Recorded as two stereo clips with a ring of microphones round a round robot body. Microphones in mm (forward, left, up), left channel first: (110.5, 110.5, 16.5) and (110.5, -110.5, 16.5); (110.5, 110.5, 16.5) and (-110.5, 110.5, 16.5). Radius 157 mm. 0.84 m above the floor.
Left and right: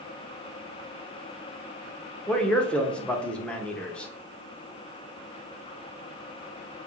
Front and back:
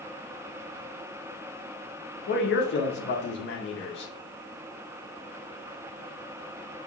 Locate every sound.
2.3 s a man speaking: 5° left, 0.7 m